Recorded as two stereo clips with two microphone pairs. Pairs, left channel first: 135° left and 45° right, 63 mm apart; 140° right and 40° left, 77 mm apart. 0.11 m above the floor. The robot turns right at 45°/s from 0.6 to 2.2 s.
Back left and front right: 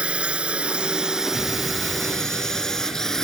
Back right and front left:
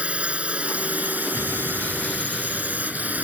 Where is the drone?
5° right; by 3.2 s 65° left.